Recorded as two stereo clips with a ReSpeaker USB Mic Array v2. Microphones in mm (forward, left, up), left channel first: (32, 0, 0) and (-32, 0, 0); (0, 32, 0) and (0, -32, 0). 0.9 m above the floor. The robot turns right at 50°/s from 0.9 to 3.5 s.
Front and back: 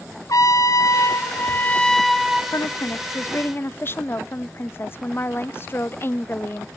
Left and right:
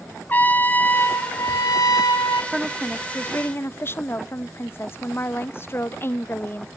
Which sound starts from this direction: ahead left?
A trumpet, at 0.3 s.